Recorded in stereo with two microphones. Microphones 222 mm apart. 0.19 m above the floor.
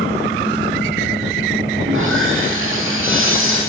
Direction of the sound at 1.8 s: 75° right (ahead or behind).